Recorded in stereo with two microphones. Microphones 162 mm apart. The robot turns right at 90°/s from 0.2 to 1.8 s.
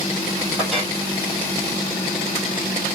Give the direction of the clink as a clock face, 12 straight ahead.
12 o'clock.